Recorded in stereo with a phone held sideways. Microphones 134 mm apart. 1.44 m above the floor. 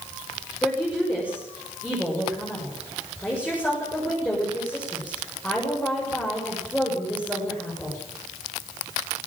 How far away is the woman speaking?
About 7 m.